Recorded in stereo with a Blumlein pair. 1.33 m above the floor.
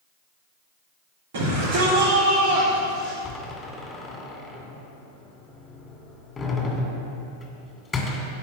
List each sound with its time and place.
1.3 s a shout: 60° right, 4.5 m; by 3.1 s 30° right, 2.5 m
3.2 s a door slam: 15° left, 2.5 m